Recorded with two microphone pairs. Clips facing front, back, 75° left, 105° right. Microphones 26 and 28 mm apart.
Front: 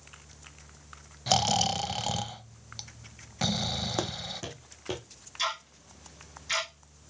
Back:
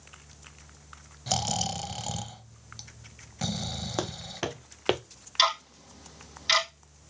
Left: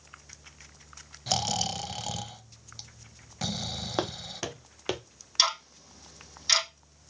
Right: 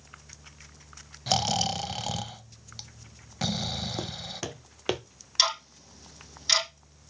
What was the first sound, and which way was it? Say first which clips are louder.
Snoring: front 4 dB, right 3 dB; 45° right.